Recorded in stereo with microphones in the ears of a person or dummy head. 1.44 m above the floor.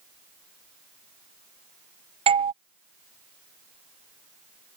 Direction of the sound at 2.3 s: 30° right (ahead or behind).